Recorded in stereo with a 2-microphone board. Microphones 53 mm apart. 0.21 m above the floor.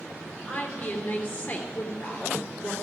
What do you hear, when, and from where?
0.5 s a woman speaking: 40° left (ahead or behind), 3 m